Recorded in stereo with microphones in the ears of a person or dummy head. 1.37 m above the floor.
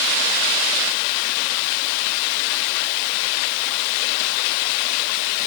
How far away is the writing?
No writing in this recording.